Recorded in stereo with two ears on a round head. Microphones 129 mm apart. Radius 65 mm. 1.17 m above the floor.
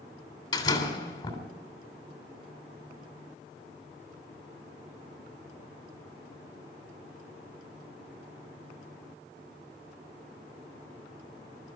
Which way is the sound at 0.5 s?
30° left (ahead or behind).